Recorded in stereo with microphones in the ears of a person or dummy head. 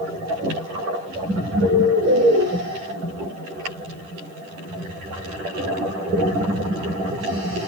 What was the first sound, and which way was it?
A bird, 80° right.